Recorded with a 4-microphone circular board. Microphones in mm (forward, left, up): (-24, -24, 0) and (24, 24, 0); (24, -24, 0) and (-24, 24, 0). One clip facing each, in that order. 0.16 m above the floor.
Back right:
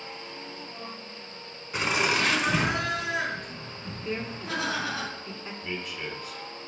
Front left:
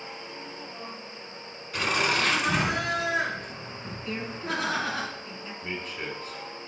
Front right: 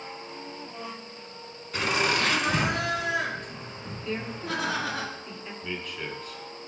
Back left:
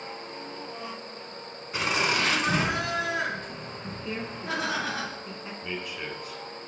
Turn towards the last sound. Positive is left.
turn(degrees=65)